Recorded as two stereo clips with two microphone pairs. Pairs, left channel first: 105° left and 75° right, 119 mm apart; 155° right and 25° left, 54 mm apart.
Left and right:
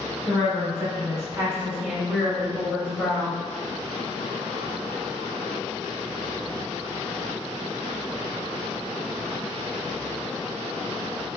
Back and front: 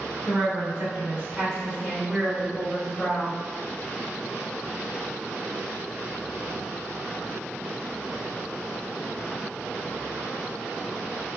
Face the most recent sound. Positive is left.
turn(degrees=160)